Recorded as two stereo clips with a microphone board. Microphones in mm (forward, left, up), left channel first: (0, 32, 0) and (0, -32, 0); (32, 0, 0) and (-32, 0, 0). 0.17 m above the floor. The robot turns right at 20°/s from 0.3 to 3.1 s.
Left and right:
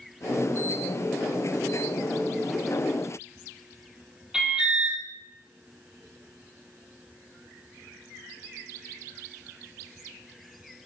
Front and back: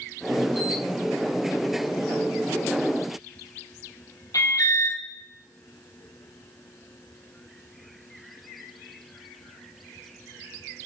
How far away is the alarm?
About 3 m.